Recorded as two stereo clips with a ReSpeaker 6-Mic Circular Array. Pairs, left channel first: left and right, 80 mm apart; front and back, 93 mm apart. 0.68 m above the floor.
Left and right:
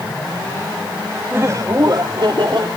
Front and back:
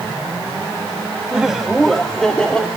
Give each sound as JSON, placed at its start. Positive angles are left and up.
{"t": 1.3, "sound": "laughter", "azimuth_deg": -105, "distance_m": 1.2}